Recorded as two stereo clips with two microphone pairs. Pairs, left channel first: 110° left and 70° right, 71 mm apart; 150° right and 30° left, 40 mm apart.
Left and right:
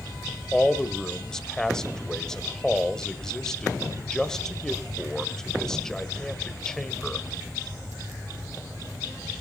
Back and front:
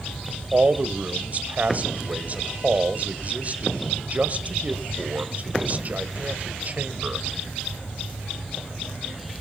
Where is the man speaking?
30° left, 1.4 m.